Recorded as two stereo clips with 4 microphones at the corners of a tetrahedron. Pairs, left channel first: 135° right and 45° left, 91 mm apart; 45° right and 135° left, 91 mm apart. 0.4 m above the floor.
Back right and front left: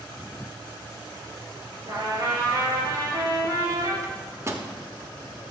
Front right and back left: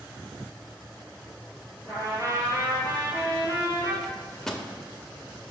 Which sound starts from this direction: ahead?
A trumpet, at 1.9 s.